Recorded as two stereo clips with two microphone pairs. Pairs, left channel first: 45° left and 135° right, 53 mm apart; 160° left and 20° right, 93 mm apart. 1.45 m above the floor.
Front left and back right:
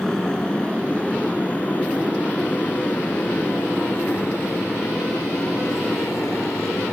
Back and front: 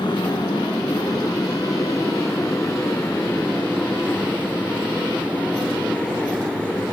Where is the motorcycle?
125° left; by 6.9 s 80° left.